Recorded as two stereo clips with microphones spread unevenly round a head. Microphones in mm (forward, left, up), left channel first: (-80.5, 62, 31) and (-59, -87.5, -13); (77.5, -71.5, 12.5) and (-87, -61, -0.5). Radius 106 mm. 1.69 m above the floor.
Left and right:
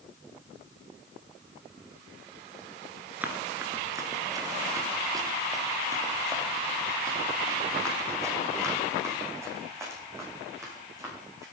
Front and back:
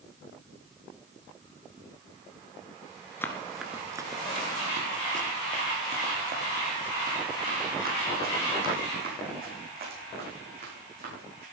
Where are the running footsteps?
25° left, 1.7 m; by 11.4 s 155° right, 9.5 m.